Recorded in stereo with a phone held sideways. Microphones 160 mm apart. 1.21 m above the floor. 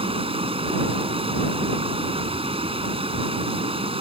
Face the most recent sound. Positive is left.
turn(degrees=-35)  # may be behind; listen again after turning